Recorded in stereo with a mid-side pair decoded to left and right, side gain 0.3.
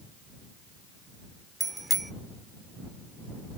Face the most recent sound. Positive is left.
turn(degrees=-20)